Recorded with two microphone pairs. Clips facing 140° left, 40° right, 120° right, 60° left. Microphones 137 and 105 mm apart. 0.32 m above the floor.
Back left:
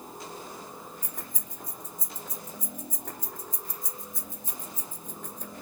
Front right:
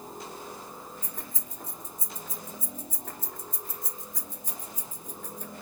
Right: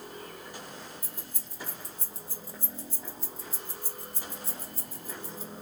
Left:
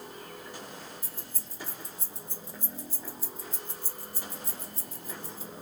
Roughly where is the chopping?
I don't hear chopping.